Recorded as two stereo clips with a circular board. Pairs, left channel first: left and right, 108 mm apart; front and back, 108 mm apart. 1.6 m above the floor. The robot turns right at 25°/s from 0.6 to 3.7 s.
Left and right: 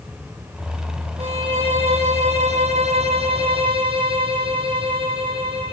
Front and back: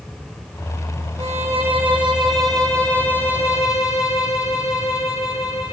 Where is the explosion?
I don't hear an explosion.